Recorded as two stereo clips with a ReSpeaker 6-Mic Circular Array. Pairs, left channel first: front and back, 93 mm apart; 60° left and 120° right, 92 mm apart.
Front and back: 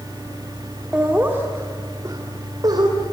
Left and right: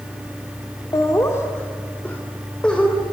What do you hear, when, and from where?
0.9 s laughter: 105° left, 2 m; by 3.0 s 140° left, 4 m